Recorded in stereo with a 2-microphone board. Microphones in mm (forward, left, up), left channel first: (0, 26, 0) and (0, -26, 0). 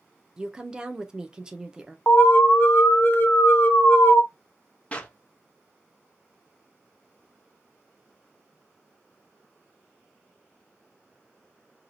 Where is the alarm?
40° left (ahead or behind), 0.8 m.